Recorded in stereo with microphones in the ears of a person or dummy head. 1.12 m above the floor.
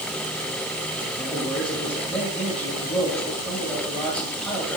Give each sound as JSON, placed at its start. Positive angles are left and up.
{"t": 1.2, "sound": "a man speaking", "side_deg": 10, "distance_m": 7.0}